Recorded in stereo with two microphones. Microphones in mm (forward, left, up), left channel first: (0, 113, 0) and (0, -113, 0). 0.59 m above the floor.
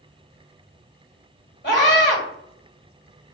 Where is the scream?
50° left (ahead or behind), 2 m.